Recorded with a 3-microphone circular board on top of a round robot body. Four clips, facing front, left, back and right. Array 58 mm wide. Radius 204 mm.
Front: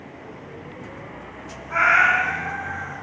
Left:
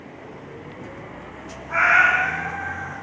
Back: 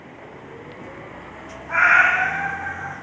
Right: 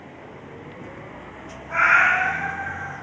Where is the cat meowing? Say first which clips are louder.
Left 1 dB, back 2 dB; 175° left, 0.5 m.